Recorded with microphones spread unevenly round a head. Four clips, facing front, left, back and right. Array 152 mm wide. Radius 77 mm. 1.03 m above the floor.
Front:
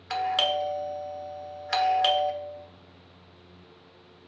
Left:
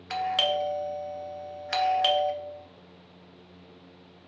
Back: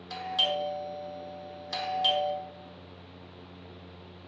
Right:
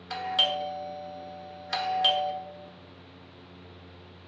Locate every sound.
0.1 s a doorbell: 15° left, 1.0 m